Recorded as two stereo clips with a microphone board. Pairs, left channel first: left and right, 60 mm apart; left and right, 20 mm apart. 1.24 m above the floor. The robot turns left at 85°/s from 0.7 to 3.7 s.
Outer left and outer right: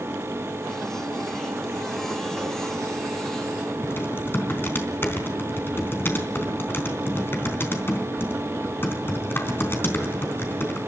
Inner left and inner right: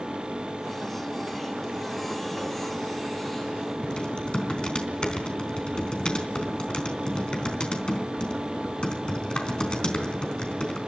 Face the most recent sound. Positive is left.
turn(degrees=35)  # may be behind; listen again after turning